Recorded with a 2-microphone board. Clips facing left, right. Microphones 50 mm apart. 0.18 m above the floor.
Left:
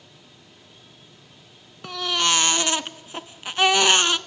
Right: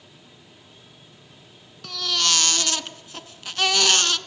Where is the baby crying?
25° left (ahead or behind), 1.0 m.